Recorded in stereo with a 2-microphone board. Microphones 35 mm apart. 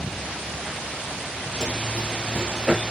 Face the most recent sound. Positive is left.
turn(degrees=5)  # may be behind; listen again after turning